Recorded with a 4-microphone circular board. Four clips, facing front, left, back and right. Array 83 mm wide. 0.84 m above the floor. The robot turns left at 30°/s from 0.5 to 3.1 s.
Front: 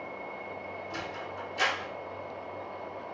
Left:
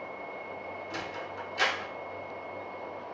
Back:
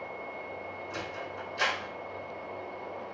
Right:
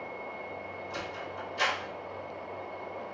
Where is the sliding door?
100° left, 1.2 m; by 1.9 s 70° left, 1.2 m.